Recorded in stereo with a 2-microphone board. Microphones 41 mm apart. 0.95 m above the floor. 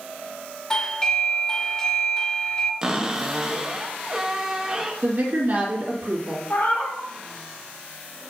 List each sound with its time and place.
0.7 s a doorbell: 20° left (ahead or behind), 0.7 m
2.8 s a cupboard door: 15° right (ahead or behind), 0.7 m
5.0 s a woman speaking: 55° right (ahead or behind), 1.9 m
6.5 s a cat meowing: 50° left (ahead or behind), 1.1 m